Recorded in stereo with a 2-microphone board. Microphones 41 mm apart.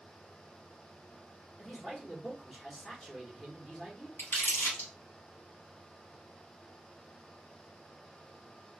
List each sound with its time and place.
1.6 s a man speaking: 20° left (ahead or behind), 1.1 m
4.2 s crumpling: 65° left (ahead or behind), 1.5 m